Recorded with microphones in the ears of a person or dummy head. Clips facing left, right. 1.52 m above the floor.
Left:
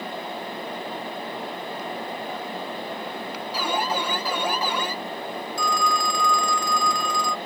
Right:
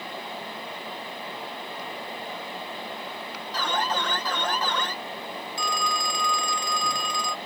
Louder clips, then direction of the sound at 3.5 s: Left 2 dB; 15° left (ahead or behind).